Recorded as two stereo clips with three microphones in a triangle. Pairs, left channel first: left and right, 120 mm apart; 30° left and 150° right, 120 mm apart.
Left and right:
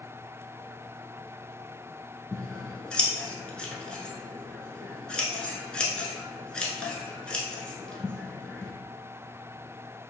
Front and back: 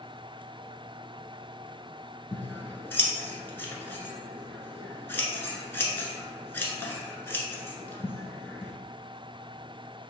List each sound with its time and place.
2.3 s scissors: 25° left, 0.7 m